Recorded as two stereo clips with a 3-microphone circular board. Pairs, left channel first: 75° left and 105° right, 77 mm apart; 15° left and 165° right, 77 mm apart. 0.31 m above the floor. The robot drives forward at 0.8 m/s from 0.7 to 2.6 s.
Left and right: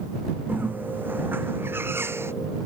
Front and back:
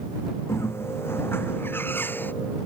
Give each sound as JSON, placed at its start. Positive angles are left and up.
{"t": 0.5, "sound": "a bird", "azimuth_deg": -40}